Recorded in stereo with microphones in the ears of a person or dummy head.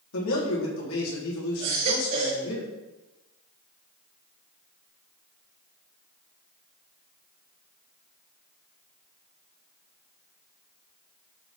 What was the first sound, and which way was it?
A man speaking, 75° left (ahead or behind).